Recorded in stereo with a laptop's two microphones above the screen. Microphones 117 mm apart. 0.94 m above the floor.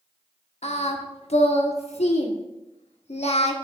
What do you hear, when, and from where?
0.6 s singing: 75° left (ahead or behind), 0.8 m